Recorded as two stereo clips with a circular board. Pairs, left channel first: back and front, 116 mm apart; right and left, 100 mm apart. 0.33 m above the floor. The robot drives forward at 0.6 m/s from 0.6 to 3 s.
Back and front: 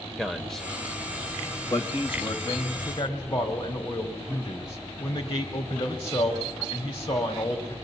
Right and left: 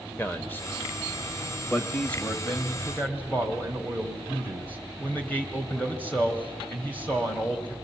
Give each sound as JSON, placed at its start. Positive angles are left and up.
{"t": 0.2, "sound": "a man speaking", "azimuth_deg": -100, "distance_m": 0.8}
{"t": 2.5, "sound": "a man speaking", "azimuth_deg": -150, "distance_m": 1.5}